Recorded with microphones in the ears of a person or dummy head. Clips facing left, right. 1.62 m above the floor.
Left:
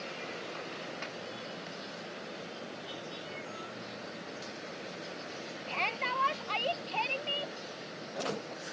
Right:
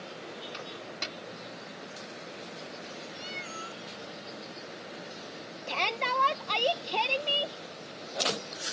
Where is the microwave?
50° right (ahead or behind).